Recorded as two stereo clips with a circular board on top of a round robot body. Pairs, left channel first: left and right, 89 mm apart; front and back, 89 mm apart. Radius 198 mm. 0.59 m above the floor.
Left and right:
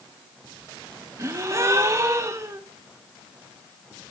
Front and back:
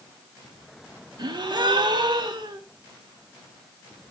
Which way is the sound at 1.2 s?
145° right.